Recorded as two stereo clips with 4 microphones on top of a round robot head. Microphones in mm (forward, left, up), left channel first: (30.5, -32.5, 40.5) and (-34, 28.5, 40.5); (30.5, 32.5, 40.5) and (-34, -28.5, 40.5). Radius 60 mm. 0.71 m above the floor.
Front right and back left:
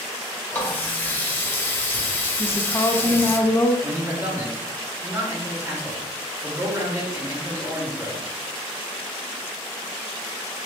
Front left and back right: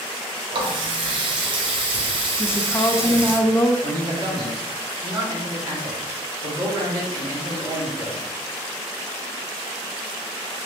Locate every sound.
0.5 s a running tap: 110° right, 0.8 m
2.4 s a woman speaking: 5° right, 0.5 m
3.8 s a man speaking: 165° right, 1.9 m